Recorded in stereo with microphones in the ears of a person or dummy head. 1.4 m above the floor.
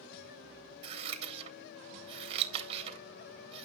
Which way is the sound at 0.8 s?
30° right (ahead or behind).